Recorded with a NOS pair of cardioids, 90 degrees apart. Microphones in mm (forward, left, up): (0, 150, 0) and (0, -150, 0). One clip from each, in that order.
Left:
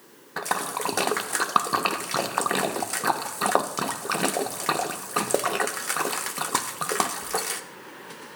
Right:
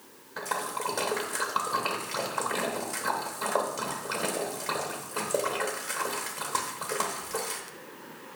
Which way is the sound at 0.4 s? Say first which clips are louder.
Left 4 dB; 40° left.